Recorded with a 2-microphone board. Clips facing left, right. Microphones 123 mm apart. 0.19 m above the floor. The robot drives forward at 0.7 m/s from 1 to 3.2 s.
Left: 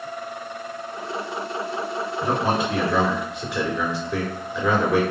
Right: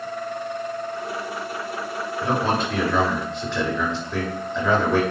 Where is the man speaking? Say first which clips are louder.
Even; 15° left (ahead or behind), 2.5 m; by 5.0 s 10° left (ahead or behind), 3 m.